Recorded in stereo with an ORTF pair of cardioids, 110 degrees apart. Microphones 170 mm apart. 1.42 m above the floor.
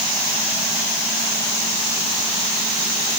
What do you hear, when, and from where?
Only background noise.